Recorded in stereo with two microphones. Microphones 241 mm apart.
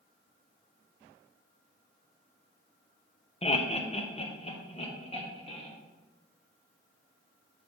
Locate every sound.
3.4 s laughter: 25° left (ahead or behind), 0.7 m